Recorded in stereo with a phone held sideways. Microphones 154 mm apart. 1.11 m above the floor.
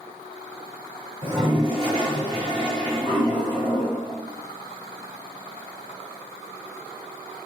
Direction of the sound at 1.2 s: 35° right (ahead or behind).